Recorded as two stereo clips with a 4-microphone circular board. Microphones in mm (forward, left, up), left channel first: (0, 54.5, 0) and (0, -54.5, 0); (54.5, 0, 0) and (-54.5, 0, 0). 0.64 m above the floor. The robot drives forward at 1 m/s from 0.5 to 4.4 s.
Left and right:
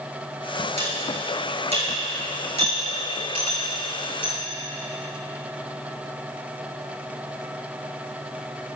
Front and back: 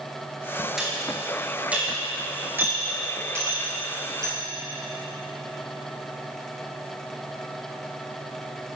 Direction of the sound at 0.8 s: 95° right.